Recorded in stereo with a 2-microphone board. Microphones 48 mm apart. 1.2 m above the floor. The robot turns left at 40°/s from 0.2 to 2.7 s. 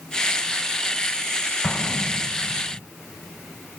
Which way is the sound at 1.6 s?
155° left.